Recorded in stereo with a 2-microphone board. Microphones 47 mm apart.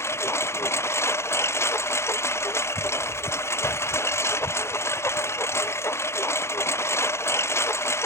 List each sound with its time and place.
0.0 s a lawn mower: 65° left (ahead or behind)